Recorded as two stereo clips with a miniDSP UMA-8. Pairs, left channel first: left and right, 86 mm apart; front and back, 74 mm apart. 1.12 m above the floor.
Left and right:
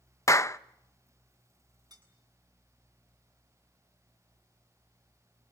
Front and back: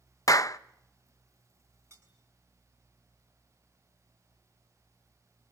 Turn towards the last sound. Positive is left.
turn(degrees=-130)